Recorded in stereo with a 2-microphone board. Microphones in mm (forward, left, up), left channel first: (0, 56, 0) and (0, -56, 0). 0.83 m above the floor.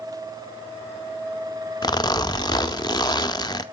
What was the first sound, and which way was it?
A zipper, 35° left (ahead or behind).